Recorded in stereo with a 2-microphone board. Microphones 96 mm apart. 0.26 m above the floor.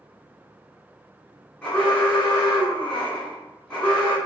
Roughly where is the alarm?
Centre.